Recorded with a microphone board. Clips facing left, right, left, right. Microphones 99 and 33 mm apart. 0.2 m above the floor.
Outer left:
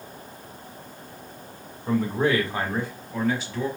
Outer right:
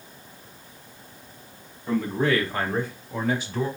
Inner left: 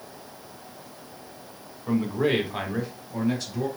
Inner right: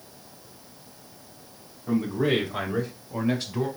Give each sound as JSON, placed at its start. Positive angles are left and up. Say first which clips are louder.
{"t": 1.9, "sound": "a man speaking", "louder": "outer left 1 dB, even", "side_deg": 40, "distance_m": 1.6}